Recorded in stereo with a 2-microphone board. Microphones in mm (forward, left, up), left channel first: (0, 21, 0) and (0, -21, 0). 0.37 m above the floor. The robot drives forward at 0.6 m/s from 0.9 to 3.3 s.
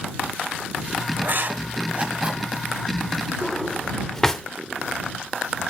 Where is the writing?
50° right (ahead or behind), 0.6 m; by 2.5 s 25° right (ahead or behind), 1.1 m.